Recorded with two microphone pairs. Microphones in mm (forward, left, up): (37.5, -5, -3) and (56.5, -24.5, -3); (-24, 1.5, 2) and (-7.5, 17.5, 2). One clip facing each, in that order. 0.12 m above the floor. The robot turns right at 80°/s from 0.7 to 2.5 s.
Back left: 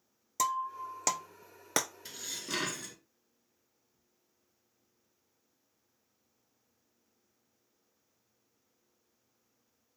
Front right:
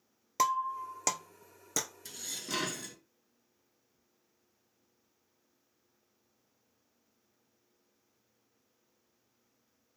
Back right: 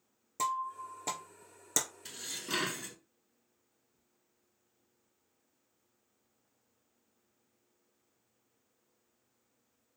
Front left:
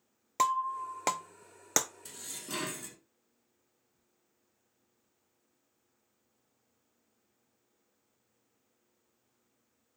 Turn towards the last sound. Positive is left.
turn(degrees=-130)